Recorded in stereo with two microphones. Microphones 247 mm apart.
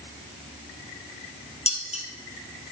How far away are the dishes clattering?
About 2.5 m.